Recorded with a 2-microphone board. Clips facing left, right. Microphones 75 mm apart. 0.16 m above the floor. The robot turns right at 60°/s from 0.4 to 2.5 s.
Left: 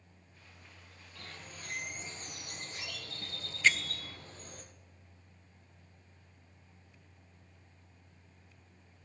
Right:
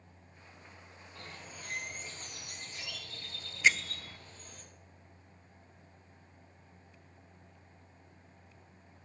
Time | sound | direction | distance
1.1 | a bird | 30° right | 2.5 m
3.6 | a bell | 10° right (ahead or behind) | 0.7 m